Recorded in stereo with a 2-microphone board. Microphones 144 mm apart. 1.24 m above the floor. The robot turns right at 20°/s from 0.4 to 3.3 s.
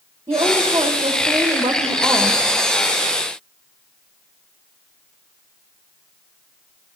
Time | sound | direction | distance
0.3 | a woman speaking | 30° right | 1.9 m